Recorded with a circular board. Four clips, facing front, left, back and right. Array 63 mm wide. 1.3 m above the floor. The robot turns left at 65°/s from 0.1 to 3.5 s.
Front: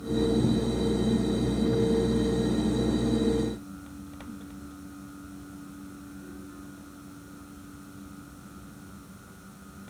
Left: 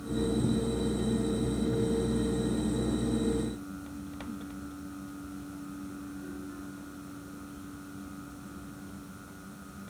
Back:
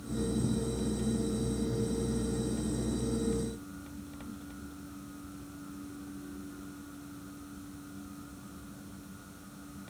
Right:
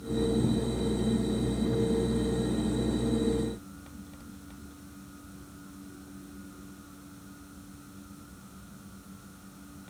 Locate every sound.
Only background noise.